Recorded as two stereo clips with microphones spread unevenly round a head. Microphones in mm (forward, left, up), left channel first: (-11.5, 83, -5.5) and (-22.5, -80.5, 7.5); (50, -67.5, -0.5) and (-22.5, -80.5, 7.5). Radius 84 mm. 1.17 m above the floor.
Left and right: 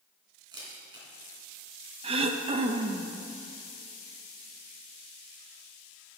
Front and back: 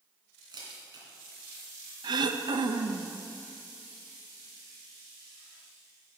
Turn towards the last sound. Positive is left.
turn(degrees=-150)